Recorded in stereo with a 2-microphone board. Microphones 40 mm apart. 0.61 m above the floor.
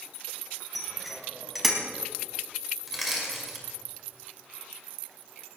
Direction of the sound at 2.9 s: Centre (ahead or behind).